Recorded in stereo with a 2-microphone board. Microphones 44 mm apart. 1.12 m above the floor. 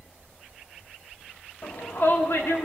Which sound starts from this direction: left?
A shout, at 1.6 s.